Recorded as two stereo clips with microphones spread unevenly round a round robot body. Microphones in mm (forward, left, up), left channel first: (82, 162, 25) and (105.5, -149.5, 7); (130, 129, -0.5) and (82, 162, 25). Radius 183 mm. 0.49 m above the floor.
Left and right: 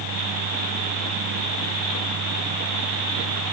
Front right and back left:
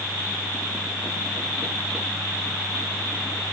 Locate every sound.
Only background noise.